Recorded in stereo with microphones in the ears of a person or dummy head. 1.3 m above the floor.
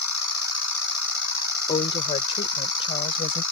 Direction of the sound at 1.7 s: 25° left (ahead or behind).